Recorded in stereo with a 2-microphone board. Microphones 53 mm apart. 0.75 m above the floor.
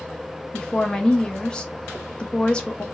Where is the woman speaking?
15° left (ahead or behind), 0.5 m.